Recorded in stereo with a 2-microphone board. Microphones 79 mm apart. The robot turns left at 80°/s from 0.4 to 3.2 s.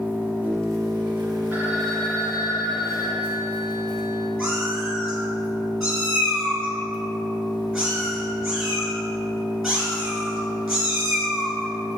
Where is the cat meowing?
Centre (ahead or behind), 2.0 m.